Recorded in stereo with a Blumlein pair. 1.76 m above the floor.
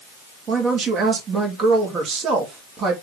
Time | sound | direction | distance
0.5 | a woman speaking | 25° right | 3 m